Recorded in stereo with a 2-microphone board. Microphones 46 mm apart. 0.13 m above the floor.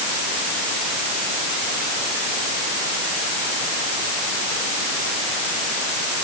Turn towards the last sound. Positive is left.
No sound to turn to.